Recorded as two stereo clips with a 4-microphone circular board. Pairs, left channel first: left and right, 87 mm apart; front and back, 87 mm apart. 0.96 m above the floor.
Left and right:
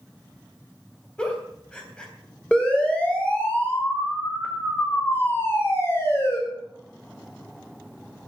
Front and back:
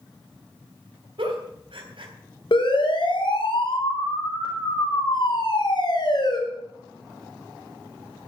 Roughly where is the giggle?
Behind.